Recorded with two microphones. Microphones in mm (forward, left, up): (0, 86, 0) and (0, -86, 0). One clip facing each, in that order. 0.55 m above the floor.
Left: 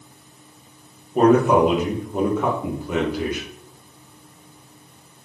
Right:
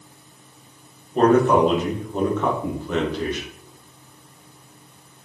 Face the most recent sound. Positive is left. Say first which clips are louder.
# left 1 dB
turn(degrees=5)  # may be behind; listen again after turning